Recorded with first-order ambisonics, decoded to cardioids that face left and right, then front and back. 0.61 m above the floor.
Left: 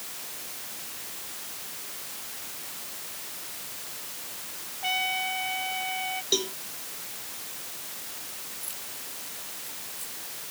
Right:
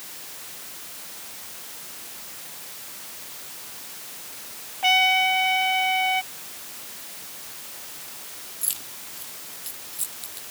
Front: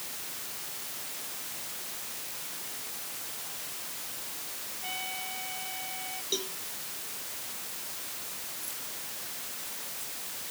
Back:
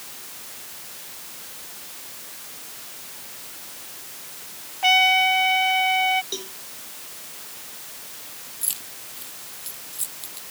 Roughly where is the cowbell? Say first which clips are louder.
Left 16 dB, back 1 dB; left.